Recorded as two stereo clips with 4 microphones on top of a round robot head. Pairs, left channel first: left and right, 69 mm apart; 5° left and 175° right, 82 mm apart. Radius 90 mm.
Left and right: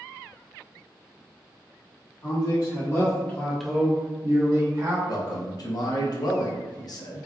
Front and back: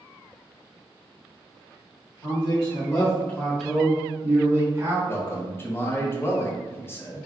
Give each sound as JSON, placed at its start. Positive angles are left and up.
{"t": 2.2, "sound": "a man speaking", "azimuth_deg": 55, "distance_m": 1.3}
{"t": 5.1, "sound": "a man speaking", "azimuth_deg": 65, "distance_m": 0.7}